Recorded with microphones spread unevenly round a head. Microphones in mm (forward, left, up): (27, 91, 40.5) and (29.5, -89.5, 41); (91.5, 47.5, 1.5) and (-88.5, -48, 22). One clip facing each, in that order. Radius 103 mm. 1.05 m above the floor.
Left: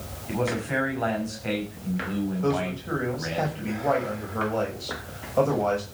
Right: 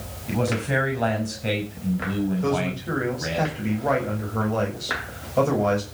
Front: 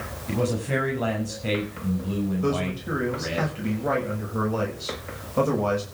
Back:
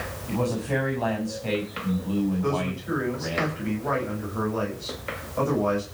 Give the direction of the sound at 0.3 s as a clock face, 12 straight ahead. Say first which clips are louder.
Right 3 dB, front 1 dB; 1 o'clock.